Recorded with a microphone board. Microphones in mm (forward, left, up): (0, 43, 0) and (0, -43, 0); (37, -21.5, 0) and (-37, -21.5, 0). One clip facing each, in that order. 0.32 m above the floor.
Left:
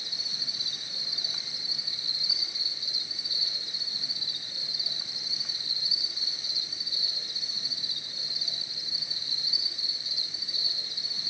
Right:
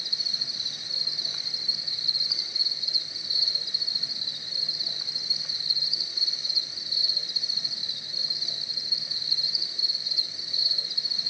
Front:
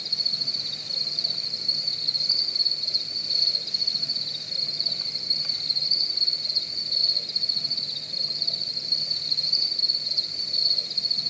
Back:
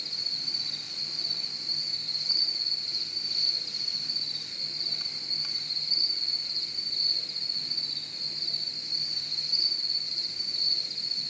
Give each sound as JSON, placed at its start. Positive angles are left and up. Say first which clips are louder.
{"t": 0.0, "sound": "an insect", "louder": "right 2 dB, front 5 dB", "azimuth_deg": 0, "distance_m": 2.5}